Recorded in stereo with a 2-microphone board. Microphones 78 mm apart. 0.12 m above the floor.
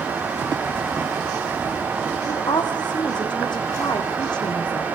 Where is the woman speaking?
75° left (ahead or behind), 6.5 m.